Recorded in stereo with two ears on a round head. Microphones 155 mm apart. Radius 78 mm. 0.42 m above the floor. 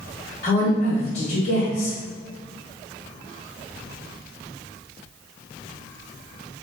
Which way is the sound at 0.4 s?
45° left (ahead or behind).